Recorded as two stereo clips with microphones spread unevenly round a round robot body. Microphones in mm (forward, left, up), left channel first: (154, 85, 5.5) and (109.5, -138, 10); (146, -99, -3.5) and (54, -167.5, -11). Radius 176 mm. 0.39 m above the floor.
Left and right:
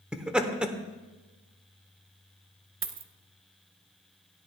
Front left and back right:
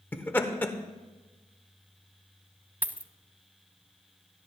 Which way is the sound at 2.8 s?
65° right.